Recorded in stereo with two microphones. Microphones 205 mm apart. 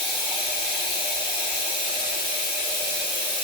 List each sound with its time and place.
0.0 s running water: 55° right (ahead or behind), 5.5 m